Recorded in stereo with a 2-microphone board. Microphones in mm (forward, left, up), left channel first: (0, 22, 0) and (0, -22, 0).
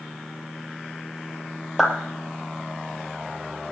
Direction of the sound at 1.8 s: 5° right (ahead or behind).